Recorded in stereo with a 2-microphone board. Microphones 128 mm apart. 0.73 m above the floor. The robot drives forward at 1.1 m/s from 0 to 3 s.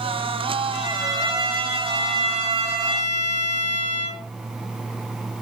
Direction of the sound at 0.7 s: 30° right (ahead or behind).